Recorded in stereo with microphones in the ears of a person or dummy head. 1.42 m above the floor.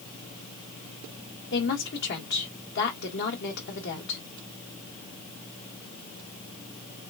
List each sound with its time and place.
1.5 s a woman speaking: 60° left (ahead or behind), 1.6 m